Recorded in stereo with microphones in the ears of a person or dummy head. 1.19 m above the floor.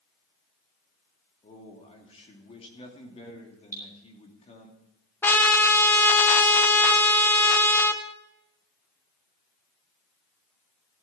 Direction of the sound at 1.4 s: 35° left (ahead or behind).